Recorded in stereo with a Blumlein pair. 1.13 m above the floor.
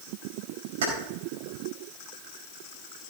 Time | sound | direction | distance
0.8 | keys jangling | 60° right | 4.5 m